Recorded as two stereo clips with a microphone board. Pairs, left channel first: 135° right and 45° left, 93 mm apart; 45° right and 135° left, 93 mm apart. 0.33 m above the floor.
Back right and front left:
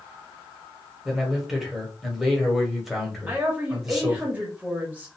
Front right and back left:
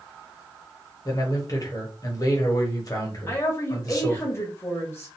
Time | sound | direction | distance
1.1 | a man speaking | 40° right | 1.2 m
3.3 | a woman speaking | 10° right | 0.9 m